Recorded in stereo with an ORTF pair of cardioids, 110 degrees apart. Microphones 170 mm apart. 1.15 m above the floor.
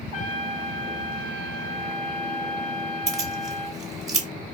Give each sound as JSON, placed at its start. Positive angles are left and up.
{"t": 0.1, "sound": "a trumpet", "azimuth_deg": 55, "distance_m": 0.9}
{"t": 3.1, "sound": "keys jangling", "azimuth_deg": -20, "distance_m": 1.0}